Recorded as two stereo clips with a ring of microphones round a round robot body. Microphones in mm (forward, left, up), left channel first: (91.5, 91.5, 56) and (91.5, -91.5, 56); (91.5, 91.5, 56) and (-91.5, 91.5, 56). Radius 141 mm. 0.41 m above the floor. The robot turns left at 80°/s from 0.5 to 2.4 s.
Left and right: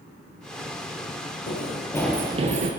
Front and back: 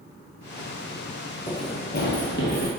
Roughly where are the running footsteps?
Left.